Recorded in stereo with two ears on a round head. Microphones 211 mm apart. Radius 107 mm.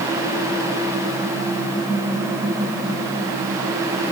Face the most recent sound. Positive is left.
No sound to turn to.